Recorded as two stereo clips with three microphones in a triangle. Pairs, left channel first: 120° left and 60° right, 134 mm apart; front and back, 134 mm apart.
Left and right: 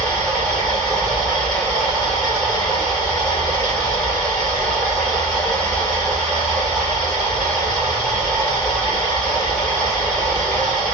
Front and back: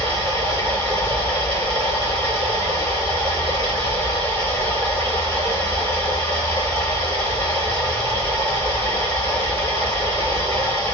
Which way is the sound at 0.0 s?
155° right.